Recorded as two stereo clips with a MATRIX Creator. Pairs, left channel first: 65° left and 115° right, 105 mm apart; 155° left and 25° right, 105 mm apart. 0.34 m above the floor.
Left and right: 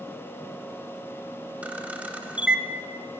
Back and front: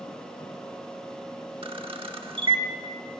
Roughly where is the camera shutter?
Ahead right.